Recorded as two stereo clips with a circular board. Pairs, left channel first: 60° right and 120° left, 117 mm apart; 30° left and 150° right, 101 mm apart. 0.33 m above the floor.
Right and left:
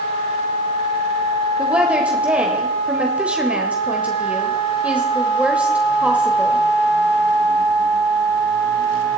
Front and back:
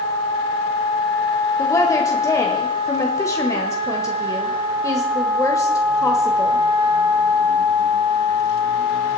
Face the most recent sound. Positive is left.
turn(degrees=50)